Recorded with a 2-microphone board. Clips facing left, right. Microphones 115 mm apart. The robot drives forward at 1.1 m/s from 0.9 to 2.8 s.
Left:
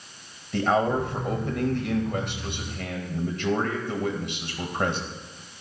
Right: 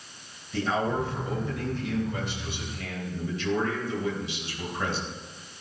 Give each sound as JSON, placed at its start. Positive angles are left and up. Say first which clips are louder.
{"t": 0.5, "sound": "a man speaking", "louder": "left 4 dB", "side_deg": 60, "distance_m": 2.5}